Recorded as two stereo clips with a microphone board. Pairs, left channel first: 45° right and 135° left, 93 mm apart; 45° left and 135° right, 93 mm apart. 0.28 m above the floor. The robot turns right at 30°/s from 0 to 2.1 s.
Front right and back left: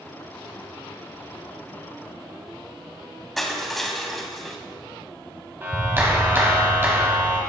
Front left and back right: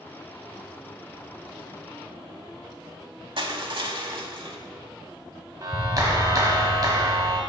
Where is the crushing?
135° right, 0.7 m.